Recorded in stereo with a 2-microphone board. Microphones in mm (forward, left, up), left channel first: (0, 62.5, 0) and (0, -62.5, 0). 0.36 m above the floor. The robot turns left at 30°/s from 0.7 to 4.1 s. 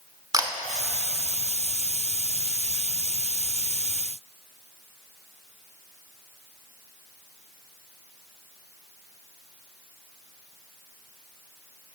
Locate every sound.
0.3 s a camera shutter: 30° right (ahead or behind), 0.8 m